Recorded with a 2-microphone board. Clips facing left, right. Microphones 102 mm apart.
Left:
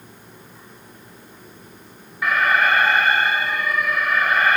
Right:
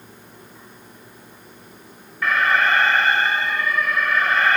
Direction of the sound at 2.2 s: 10° left (ahead or behind).